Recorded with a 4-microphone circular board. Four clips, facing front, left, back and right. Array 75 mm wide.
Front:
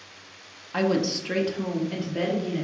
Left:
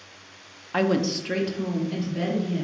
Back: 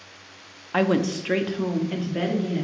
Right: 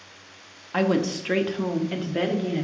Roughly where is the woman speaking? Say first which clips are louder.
Even, back 2 dB; behind.